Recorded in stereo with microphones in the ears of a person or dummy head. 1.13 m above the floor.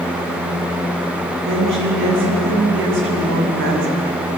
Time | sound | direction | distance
1.4 | a woman speaking | 70° right (ahead or behind) | 9 m